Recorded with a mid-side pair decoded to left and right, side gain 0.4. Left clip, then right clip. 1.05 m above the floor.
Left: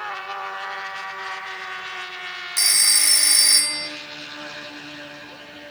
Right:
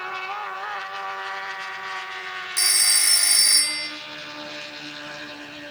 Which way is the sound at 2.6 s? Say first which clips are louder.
Left 2 dB; 15° left.